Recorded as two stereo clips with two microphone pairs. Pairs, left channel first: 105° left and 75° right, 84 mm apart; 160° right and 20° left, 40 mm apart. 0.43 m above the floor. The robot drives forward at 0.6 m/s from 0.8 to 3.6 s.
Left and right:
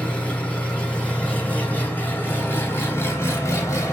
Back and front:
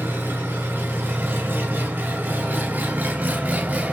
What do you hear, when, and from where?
0.0 s an engine running: 35° left, 3.5 m; by 3.9 s 60° left, 2.5 m